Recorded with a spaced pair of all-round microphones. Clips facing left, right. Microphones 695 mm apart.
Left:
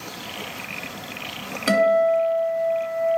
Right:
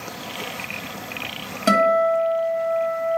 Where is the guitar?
65° right (ahead or behind), 1.5 m.